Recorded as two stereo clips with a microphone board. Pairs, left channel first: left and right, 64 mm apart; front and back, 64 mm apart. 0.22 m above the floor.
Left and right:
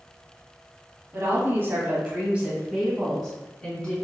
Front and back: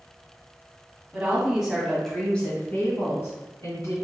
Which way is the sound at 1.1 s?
115° right.